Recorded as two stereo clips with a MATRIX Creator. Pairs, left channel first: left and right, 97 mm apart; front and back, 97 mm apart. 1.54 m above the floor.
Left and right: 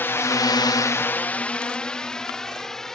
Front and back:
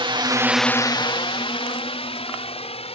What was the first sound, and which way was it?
A drone, 155° left.